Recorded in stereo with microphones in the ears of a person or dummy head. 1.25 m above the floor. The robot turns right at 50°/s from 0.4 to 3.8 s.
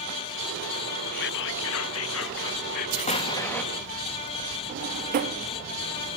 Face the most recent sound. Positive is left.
turn(degrees=-40)  # may be behind; listen again after turning